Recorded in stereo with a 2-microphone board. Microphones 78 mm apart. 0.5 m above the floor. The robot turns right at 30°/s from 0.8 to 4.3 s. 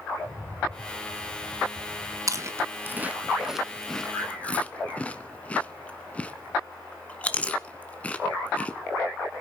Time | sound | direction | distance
0.2 | a rattle | 150° left | 5 m
2.3 | chewing | 40° right (ahead or behind) | 1.1 m